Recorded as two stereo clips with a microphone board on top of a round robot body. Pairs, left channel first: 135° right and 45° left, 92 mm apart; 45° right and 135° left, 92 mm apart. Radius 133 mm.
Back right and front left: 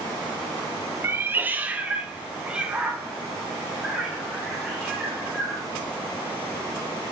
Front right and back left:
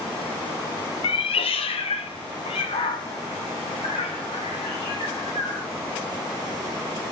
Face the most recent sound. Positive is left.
turn(degrees=-40)